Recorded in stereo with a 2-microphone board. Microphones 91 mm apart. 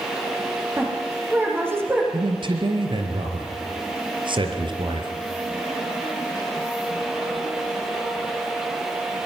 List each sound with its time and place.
0.8 s a woman speaking: 25° right (ahead or behind), 8 m
2.1 s a man speaking: 65° right (ahead or behind), 3.5 m